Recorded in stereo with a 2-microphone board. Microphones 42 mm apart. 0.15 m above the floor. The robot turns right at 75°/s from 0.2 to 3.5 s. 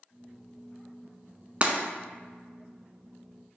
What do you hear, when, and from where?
1.6 s breaking glass: 35° right (ahead or behind), 0.5 m